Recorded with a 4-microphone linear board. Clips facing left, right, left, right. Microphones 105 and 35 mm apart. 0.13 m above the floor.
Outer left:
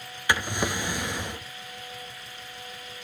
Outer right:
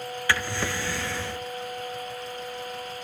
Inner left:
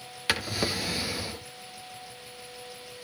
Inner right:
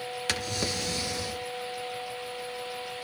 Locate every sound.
0.3 s a drawer: 20° left (ahead or behind), 0.5 m